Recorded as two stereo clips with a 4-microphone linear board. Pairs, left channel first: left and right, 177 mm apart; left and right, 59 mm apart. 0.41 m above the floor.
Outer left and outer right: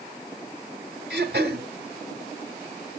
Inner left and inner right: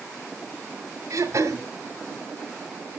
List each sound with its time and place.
1.1 s throat clearing: 65° right (ahead or behind), 2 m